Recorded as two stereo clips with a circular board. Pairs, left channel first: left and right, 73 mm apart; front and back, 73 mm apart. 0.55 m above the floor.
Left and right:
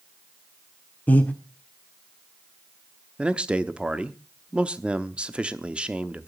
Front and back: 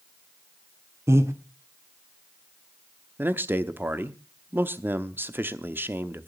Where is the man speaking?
150° right, 0.8 m.